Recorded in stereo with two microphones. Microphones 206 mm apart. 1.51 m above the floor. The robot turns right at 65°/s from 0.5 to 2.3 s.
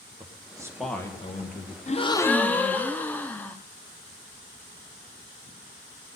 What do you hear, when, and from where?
0.2 s a man speaking: 20° right, 1.5 m; by 1.8 s 60° left, 1.5 m
1.9 s a gasp: 35° left (ahead or behind), 0.5 m; by 3.6 s 10° left (ahead or behind), 0.5 m